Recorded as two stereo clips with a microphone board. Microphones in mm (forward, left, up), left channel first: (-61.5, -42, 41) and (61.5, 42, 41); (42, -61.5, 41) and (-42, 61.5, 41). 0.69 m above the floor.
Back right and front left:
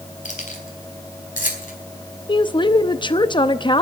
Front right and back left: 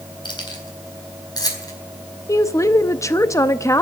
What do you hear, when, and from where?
0.2 s keys jangling: 115° right, 3.5 m; by 1.7 s 120° right, 4.5 m
2.3 s a woman speaking: 115° right, 0.7 m